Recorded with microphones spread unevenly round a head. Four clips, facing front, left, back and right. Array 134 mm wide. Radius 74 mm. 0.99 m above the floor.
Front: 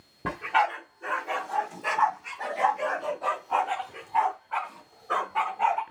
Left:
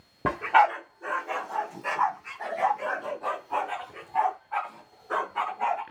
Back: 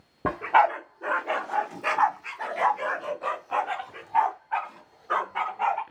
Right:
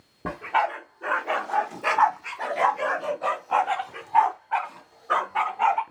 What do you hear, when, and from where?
0.2 s a dog barking: 145° left, 0.7 m; by 5.8 s 75° right, 3 m